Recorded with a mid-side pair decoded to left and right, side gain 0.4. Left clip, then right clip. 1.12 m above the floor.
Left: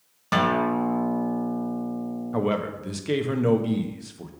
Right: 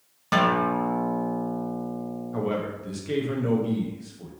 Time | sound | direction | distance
0.3 | a guitar | straight ahead | 1.4 m
2.3 | a man speaking | 55° left | 1.1 m